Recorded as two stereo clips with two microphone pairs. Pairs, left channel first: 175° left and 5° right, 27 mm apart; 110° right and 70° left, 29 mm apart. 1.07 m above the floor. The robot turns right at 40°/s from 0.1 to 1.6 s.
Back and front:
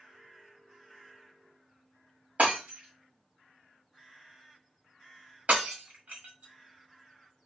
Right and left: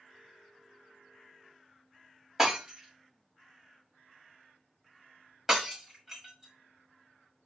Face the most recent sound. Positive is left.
turn(degrees=-5)